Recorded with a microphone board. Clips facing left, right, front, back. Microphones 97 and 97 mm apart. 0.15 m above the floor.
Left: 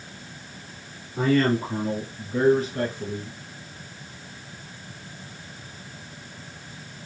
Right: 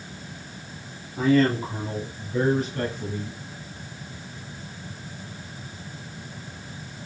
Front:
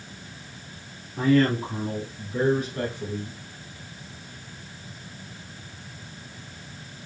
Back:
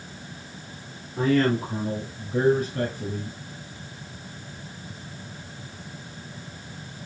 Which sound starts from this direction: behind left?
A man speaking, at 1.2 s.